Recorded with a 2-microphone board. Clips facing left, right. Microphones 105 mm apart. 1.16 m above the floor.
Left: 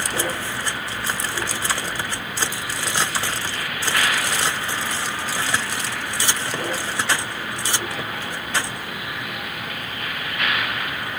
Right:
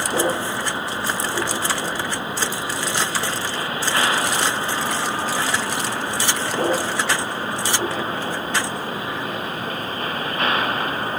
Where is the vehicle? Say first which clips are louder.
Right 5 dB; 25° right (ahead or behind); by 11.2 s 35° right (ahead or behind).